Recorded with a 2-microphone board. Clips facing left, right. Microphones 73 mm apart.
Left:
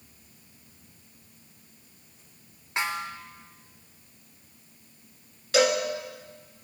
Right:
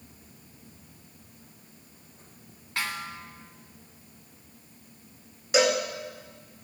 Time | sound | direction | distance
2.8 | a snare drum | 20° left (ahead or behind) | 1.6 m
5.5 | a cowbell | 15° right (ahead or behind) | 2 m